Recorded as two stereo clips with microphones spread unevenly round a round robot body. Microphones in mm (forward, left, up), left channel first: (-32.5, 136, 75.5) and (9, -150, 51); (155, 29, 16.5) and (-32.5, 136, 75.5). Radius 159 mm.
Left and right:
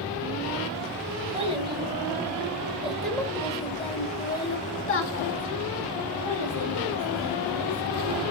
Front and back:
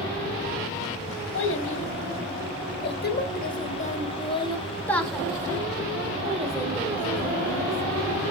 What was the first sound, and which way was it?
A child speaking, 10° right.